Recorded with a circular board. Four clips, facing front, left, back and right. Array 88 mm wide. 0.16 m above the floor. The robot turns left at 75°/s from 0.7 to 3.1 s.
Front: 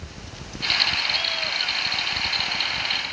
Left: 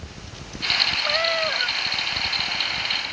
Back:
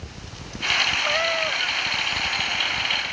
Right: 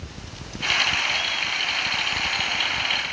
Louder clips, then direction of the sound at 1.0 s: Left 5 dB, back 7 dB; 145° left.